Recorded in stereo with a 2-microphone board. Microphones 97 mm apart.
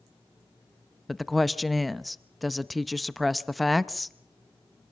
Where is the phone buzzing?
No phone buzzing in this recording.